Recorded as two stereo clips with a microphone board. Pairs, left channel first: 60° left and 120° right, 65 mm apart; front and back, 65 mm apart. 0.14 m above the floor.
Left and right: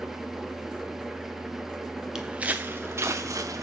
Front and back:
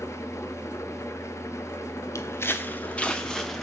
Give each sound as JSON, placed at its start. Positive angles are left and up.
{"t": 0.0, "sound": "an engine running", "azimuth_deg": -35, "distance_m": 0.7}
{"t": 2.1, "sound": "footsteps", "azimuth_deg": -40, "distance_m": 0.7}